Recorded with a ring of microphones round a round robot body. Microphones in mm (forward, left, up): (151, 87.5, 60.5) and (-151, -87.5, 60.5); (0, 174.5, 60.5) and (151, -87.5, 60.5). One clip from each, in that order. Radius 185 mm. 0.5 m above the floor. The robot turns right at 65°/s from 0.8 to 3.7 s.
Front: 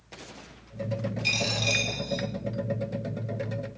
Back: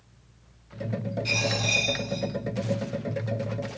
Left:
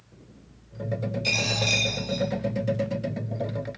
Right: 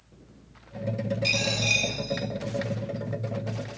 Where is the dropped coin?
5° left, 4 m; by 2.2 s 70° left, 4 m.